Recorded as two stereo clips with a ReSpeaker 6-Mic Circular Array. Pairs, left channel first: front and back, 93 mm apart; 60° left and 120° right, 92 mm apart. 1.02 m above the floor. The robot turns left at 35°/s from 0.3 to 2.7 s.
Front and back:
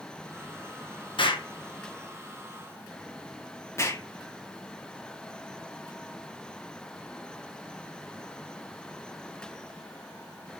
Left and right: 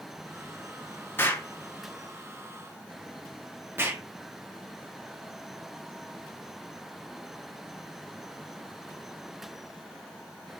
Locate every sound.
1.2 s an explosion: 5° right, 0.6 m; by 4.0 s 60° right, 0.6 m